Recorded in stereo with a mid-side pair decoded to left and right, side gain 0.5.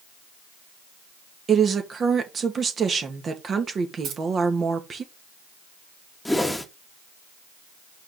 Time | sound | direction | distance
1.5 | a woman speaking | 40° right | 1.9 m
4.0 | keys jangling | 65° right | 3.5 m
6.2 | a whoosh | 5° left | 1.5 m